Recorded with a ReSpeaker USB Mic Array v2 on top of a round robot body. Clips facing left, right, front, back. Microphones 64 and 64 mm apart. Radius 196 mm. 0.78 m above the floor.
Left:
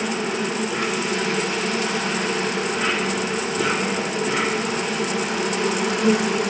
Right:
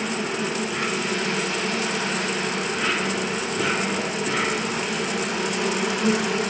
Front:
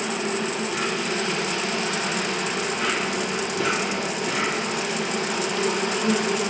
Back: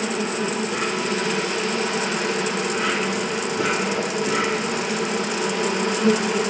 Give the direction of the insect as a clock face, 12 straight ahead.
5 o'clock.